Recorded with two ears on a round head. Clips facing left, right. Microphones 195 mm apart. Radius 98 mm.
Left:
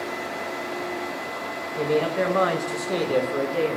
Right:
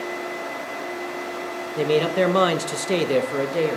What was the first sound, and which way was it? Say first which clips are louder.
A man speaking: right 3 dB; 35° right (ahead or behind).